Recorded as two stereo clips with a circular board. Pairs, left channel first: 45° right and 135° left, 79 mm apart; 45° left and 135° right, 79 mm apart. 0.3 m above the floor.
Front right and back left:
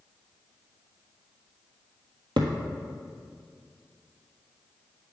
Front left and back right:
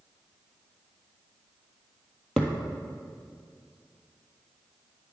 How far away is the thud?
About 1.3 m.